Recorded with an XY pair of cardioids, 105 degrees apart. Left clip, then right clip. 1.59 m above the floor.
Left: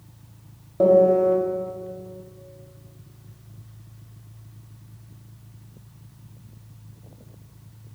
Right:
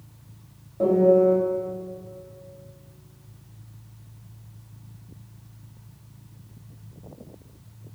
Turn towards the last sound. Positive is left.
turn(degrees=50)